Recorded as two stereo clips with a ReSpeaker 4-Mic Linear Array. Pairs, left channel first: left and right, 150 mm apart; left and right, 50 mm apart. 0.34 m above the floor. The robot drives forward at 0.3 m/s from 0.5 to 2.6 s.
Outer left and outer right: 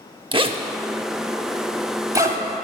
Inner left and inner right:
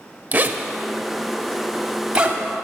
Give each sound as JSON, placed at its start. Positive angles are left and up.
{"t": 0.3, "sound": "a zipper", "side_deg": -35, "distance_m": 0.5}